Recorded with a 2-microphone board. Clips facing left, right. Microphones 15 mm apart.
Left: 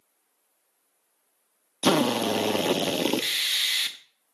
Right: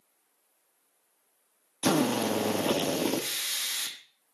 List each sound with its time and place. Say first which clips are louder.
1.8 s a drill: left 3 dB; 60° left (ahead or behind), 1.0 m